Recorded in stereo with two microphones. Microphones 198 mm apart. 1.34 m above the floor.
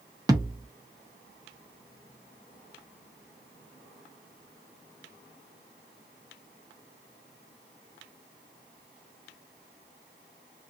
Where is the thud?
20° right (ahead or behind), 0.6 m.